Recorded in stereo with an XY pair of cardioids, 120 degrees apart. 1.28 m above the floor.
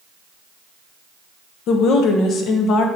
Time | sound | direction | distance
1.7 | a woman speaking | 70° left | 0.7 m